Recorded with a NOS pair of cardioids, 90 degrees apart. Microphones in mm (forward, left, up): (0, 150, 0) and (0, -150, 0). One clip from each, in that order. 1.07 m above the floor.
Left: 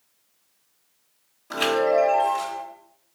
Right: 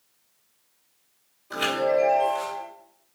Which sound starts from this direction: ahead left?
A chime, at 1.5 s.